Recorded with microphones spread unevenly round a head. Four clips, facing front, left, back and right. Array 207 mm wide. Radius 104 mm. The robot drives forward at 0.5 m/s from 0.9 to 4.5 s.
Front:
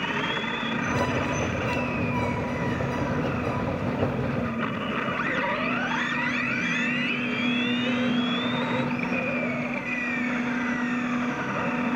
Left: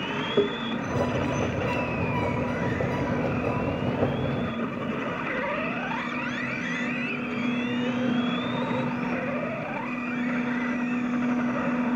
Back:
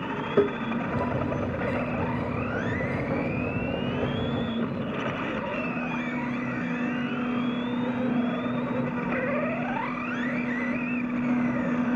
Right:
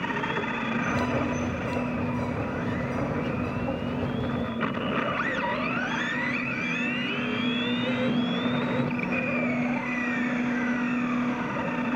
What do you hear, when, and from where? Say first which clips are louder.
0.4 s tapping: left 7 dB, back 8 dB; 145° left